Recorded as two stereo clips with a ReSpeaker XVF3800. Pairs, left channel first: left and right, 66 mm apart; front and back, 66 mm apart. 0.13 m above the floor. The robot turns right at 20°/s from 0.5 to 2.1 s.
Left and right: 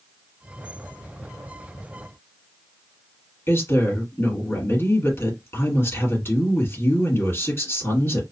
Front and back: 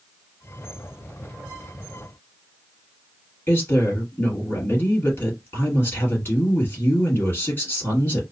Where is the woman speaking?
50° left, 2.5 m.